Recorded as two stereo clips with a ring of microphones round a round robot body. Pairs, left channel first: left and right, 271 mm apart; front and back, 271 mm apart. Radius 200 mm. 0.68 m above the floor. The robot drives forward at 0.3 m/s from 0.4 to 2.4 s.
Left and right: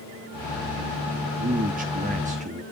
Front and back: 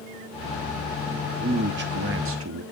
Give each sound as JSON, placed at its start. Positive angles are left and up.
{"t": 1.4, "sound": "a man speaking", "azimuth_deg": -130, "distance_m": 0.6}